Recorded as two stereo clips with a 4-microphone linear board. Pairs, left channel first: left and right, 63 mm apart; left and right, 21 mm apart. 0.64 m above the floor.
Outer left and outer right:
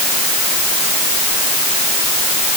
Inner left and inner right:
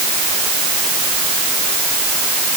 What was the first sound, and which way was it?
Only background noise.